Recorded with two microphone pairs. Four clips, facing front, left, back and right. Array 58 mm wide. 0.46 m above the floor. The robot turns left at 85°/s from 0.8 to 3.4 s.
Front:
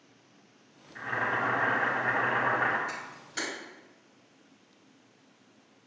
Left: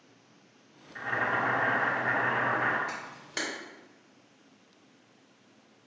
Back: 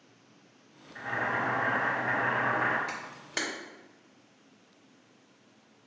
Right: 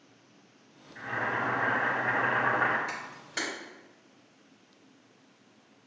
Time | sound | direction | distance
0.9 | boiling | 70° left | 1.1 m
2.9 | a camera shutter | 150° right | 1.5 m